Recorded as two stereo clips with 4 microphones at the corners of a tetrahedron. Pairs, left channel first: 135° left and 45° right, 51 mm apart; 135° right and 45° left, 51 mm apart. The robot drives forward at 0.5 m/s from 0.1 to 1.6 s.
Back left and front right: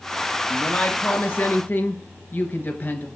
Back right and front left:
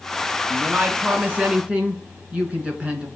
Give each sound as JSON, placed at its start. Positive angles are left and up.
{"t": 0.5, "sound": "a woman speaking", "azimuth_deg": 85, "distance_m": 2.5}